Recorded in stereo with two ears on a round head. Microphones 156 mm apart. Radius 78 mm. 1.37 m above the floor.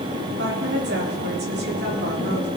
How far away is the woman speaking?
About 4 m.